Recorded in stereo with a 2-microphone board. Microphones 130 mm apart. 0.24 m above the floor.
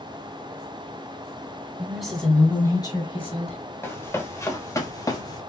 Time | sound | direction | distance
1.8 | a woman speaking | 10° right (ahead or behind) | 2 m
3.8 | running footsteps | 15° left (ahead or behind) | 1.6 m